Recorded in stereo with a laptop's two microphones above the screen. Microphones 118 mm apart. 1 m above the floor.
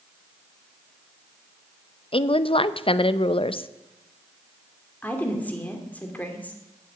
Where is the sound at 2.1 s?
50° left (ahead or behind), 0.6 m.